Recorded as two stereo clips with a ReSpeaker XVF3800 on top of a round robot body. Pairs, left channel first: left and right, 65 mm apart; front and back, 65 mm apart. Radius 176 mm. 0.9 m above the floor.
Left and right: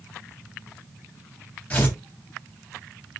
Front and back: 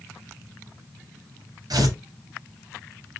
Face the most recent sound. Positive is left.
turn(degrees=160)